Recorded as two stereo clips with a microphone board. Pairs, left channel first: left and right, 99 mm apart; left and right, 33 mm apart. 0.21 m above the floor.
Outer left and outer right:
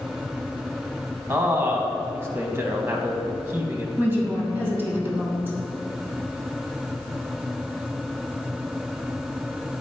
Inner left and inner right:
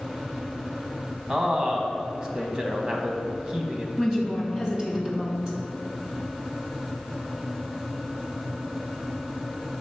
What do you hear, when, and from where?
1.3 s a man speaking: 25° right (ahead or behind), 1.1 m
4.0 s a woman speaking: 25° right (ahead or behind), 1.5 m